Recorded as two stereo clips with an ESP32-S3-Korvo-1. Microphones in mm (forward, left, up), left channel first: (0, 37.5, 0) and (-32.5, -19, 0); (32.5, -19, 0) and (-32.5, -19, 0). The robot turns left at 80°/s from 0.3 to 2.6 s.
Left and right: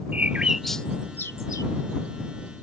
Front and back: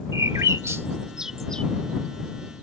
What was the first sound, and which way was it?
A bird, 175° left.